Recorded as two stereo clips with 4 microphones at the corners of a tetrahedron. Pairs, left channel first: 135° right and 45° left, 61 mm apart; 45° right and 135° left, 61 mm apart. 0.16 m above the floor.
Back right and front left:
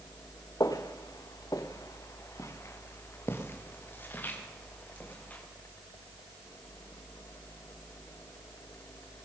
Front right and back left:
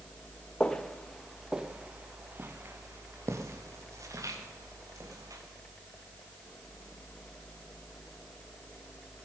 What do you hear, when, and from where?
0.6 s footsteps: 120° right, 1.6 m; by 5.4 s 160° left, 4.5 m